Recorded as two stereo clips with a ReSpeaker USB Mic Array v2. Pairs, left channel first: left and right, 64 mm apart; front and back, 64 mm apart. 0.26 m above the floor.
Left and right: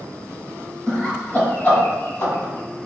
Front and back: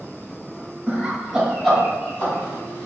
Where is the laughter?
160° left, 0.9 m; by 2.9 s 60° left, 1.8 m.